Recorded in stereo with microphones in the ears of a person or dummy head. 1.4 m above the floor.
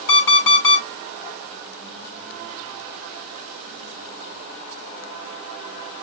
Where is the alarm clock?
80° left, 4.5 m.